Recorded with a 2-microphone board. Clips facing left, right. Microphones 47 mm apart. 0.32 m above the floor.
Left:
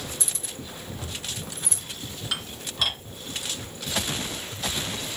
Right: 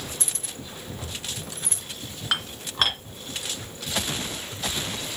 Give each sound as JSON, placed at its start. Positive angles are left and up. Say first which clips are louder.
{"t": 0.2, "sound": "keys jangling", "louder": "even", "side_deg": -50, "distance_m": 1.5}
{"t": 2.3, "sound": "dishes clattering", "louder": "right 6 dB", "side_deg": -50, "distance_m": 2.5}